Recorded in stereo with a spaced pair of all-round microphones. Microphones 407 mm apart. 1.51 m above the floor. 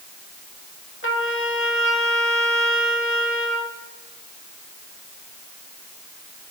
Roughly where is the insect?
I don't hear an insect.